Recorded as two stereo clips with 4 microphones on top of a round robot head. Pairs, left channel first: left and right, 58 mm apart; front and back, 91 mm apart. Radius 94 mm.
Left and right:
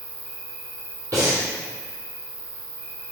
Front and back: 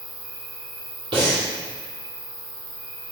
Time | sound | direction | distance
0.0 | an insect | 105° right | 1.3 m
1.1 | breathing | 135° right | 2.5 m